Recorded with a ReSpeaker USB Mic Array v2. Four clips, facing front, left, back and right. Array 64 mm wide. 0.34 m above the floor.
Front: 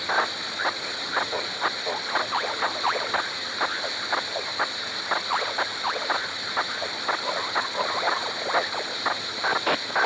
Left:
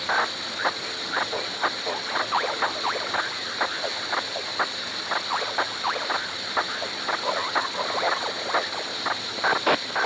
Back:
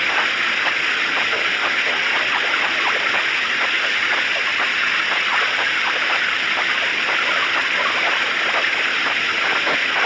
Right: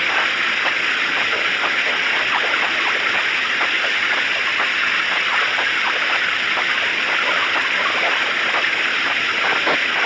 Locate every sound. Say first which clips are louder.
0.0 s running water: right 6 dB, back 6 dB; 130° right